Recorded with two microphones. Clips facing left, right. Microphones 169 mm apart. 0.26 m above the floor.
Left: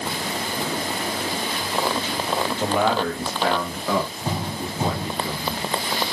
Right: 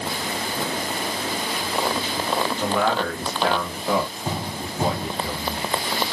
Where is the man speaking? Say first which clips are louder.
Left 3 dB; 25° left (ahead or behind), 1.0 m; by 5.7 s 40° right (ahead or behind), 1.7 m.